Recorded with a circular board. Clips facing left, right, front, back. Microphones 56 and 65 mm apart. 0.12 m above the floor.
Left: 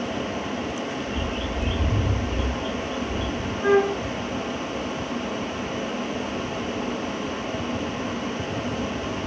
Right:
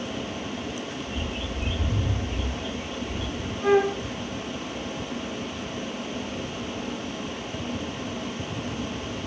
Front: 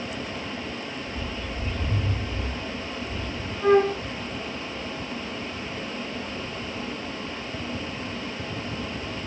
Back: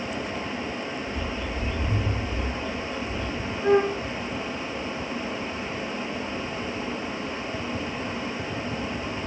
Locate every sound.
1.1 s a bird: 175° left, 1.0 m
3.6 s a flute: 10° left, 1.0 m